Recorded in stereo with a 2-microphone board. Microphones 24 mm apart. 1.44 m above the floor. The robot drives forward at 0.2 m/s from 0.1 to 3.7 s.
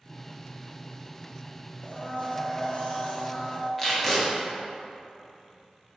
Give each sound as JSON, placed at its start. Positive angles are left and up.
{"t": 1.8, "sound": "a blender", "side_deg": 55, "distance_m": 0.8}
{"t": 3.8, "sound": "tape being pulled", "side_deg": 10, "distance_m": 0.9}